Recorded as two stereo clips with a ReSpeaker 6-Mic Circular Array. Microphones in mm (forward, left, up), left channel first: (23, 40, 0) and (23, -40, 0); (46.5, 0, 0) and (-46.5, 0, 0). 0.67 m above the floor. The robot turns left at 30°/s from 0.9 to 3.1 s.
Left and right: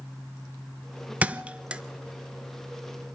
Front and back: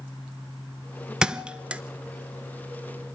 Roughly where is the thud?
Behind right.